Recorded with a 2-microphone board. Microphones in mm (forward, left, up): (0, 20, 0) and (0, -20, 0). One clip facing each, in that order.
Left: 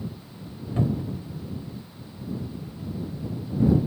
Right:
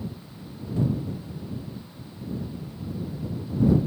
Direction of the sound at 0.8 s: 50° left (ahead or behind).